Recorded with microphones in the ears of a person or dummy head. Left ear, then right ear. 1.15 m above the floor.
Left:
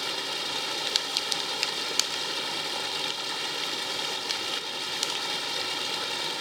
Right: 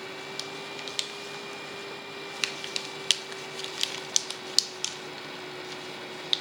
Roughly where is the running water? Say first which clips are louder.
Left 7 dB; left.